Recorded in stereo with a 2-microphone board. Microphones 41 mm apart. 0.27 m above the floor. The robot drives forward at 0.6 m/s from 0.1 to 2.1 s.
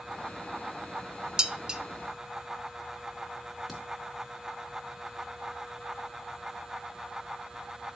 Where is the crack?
Centre (ahead or behind), 3.5 m.